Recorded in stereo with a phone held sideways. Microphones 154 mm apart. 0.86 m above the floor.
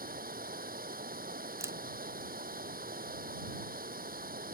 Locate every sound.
0.0 s running water: 70° right (ahead or behind)
1.6 s a camera shutter: 15° right (ahead or behind)